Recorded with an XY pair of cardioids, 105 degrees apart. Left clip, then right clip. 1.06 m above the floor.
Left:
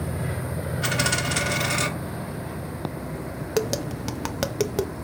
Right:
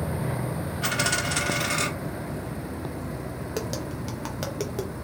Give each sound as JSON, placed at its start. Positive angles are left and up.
{"t": 0.8, "sound": "a dropped coin", "azimuth_deg": 10, "distance_m": 0.9}
{"t": 3.6, "sound": "tapping", "azimuth_deg": 45, "distance_m": 0.5}